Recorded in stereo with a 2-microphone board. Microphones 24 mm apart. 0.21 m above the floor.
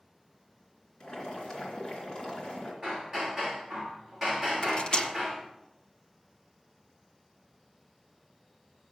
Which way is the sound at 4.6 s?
45° left (ahead or behind).